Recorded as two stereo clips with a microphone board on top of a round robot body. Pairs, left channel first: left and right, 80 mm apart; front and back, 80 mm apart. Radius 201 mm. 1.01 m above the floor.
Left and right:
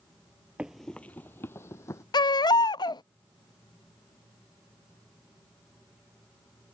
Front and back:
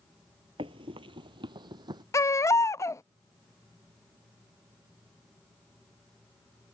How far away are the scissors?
I don't hear scissors.